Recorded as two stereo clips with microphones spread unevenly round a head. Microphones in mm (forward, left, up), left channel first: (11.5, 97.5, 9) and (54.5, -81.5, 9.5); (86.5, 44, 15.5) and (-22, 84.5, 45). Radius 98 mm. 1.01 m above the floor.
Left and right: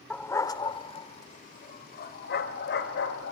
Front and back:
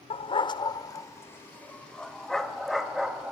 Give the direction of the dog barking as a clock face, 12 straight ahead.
11 o'clock.